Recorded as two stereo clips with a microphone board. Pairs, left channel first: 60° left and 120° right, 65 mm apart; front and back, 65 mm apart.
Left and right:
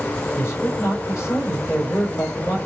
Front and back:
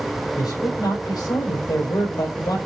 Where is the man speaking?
10° left, 4 m.